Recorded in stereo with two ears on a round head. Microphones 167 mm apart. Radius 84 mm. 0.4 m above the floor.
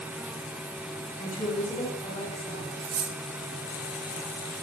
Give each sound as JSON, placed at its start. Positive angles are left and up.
{"t": 1.2, "sound": "a woman speaking", "side_deg": 40, "distance_m": 4.0}
{"t": 2.8, "sound": "cutlery clinking", "side_deg": -70, "distance_m": 3.0}